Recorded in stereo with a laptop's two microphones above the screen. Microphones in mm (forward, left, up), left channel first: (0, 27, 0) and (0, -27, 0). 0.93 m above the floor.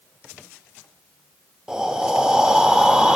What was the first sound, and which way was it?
Breathing, 15° right (ahead or behind).